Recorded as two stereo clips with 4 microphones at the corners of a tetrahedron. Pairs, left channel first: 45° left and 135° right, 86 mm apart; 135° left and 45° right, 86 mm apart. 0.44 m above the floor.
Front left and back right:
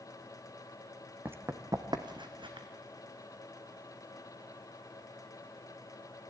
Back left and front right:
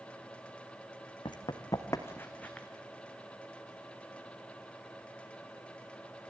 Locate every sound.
1.2 s running footsteps: 160° left, 1.6 m; by 2.7 s 145° right, 2 m